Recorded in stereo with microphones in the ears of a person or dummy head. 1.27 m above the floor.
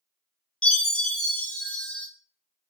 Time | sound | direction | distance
0.6 | a chime | 5° left (ahead or behind) | 0.9 m